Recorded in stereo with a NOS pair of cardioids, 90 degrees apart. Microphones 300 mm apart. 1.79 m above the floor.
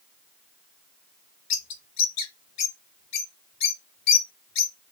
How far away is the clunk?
No clunk in this recording.